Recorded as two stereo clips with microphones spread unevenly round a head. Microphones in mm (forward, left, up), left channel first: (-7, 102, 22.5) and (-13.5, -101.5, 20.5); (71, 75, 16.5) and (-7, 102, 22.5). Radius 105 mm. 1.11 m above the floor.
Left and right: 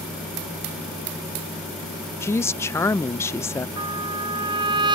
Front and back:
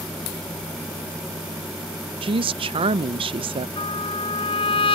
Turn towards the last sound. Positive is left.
turn(degrees=-20)